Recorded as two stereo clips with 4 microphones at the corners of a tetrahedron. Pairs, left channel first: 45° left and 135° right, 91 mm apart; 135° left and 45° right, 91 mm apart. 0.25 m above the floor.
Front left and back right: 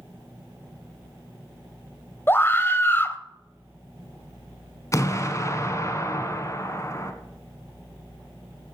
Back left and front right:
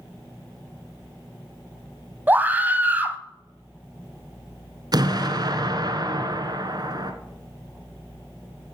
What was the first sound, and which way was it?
A scream, 5° left.